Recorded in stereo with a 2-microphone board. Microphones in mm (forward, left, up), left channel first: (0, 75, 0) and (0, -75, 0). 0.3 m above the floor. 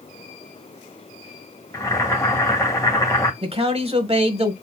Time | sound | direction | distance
1.7 | boiling | 20° left (ahead or behind) | 1.5 m
3.4 | a man speaking | 40° right (ahead or behind) | 1.2 m